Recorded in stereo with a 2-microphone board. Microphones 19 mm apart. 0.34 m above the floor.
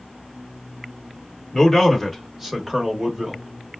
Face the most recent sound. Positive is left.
turn(degrees=-45)  # may be behind; listen again after turning